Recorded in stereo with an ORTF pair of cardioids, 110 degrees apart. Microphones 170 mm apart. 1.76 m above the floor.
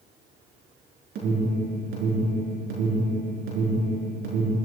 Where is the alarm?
70° right, 6 m.